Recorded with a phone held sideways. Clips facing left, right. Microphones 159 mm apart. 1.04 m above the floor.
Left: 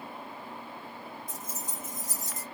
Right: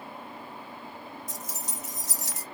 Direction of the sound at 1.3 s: 75° right (ahead or behind).